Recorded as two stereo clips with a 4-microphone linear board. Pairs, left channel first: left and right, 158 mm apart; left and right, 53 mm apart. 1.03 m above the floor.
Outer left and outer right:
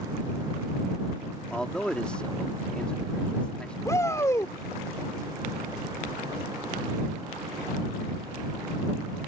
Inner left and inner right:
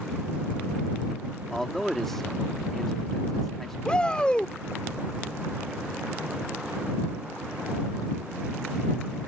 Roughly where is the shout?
Centre.